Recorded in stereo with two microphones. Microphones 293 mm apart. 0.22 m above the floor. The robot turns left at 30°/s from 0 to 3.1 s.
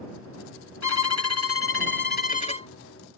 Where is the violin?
75° left; by 2.7 s 20° left.